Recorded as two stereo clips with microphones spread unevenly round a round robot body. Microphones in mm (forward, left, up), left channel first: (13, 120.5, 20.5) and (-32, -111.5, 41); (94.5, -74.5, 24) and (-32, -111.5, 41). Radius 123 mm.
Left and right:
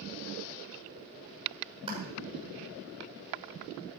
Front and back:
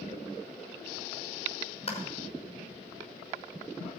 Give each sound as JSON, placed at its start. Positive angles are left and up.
{"t": 1.9, "sound": "a clap", "azimuth_deg": -30, "distance_m": 6.0}